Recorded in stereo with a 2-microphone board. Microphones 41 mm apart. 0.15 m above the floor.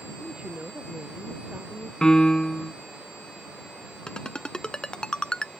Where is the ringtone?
20° left (ahead or behind).